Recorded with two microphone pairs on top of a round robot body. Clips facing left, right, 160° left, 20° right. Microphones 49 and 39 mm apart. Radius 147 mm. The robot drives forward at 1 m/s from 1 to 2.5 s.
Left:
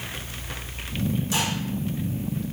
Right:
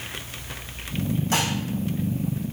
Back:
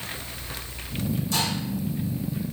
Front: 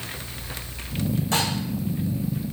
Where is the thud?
I don't hear a thud.